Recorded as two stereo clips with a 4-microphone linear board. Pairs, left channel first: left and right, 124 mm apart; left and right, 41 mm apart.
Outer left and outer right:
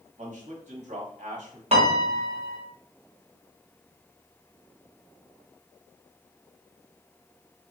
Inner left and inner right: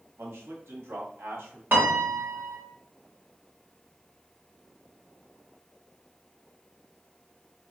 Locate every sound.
0.2 s a man speaking: 80° right, 0.9 m
1.7 s a piano: 60° right (ahead or behind), 0.7 m